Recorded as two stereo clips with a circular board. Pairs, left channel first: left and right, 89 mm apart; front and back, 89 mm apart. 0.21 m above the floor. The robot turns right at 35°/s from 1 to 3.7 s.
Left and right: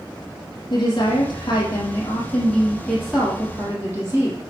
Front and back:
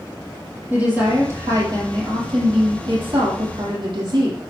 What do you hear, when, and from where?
0.7 s a woman speaking: 110° left, 6.5 m; by 4.4 s 155° right, 6.5 m